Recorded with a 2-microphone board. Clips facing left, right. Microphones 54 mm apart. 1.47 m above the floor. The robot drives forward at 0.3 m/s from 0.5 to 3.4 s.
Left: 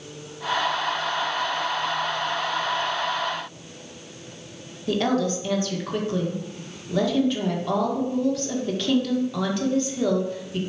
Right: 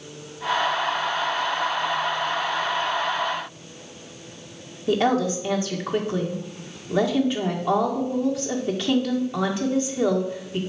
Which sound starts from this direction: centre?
A woman speaking, at 4.9 s.